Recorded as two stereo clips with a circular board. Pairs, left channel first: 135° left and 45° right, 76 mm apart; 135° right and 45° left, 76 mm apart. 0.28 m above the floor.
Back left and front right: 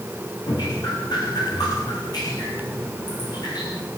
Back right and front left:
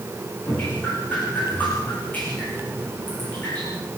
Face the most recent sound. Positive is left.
turn(degrees=155)